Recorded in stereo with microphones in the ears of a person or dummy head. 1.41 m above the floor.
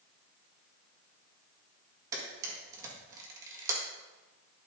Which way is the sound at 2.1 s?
15° right (ahead or behind).